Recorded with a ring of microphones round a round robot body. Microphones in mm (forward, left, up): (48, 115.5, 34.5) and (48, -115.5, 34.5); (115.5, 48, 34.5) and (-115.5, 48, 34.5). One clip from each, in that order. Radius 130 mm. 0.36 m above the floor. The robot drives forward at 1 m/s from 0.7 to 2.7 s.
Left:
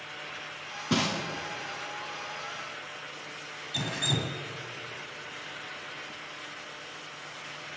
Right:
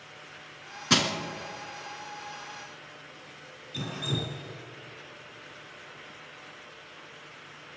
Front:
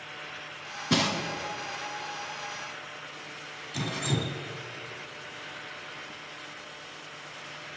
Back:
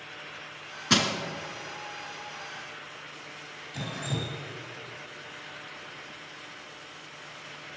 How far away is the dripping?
About 2.0 m.